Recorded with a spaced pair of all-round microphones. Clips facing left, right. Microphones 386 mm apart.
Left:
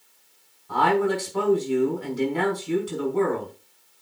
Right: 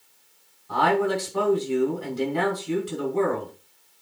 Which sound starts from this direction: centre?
A man speaking, at 0.7 s.